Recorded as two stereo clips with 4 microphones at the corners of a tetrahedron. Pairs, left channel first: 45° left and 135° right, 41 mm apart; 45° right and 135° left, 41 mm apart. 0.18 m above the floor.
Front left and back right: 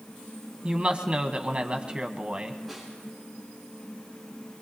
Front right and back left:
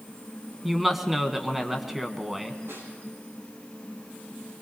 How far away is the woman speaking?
About 1.3 m.